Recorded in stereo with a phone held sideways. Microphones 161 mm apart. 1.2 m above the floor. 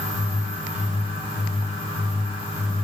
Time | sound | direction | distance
0.0 | a fan | 40° left (ahead or behind) | 6 m